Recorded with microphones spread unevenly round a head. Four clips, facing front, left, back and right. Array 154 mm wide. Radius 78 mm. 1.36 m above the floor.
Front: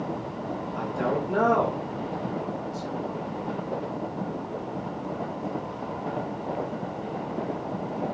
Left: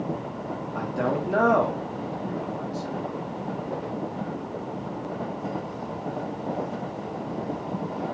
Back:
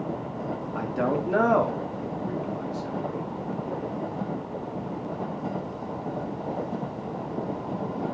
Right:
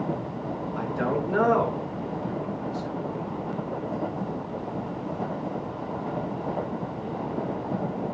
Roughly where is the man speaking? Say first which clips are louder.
Left 1 dB, back 1 dB; behind left.